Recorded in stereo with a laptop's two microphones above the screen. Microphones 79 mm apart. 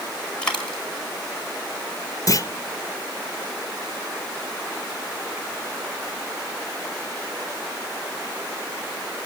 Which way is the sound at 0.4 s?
10° left (ahead or behind).